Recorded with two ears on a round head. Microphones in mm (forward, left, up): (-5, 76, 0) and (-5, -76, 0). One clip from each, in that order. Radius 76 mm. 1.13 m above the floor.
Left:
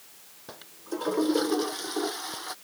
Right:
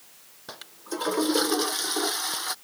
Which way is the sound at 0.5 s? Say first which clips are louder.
Right 1 dB; 45° right (ahead or behind).